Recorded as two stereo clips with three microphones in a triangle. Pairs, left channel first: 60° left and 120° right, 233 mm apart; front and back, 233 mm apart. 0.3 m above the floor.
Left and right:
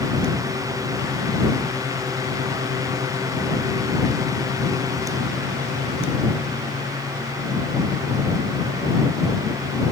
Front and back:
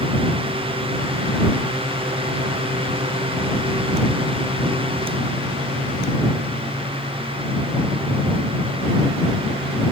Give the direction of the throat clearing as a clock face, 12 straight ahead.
No throat clearing in this recording.